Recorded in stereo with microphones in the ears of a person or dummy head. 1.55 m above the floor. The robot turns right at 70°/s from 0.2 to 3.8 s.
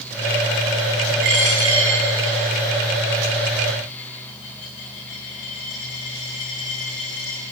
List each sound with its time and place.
1.2 s a dropped coin: 60° right (ahead or behind), 7 m; by 7.4 s 65° left (ahead or behind), 7 m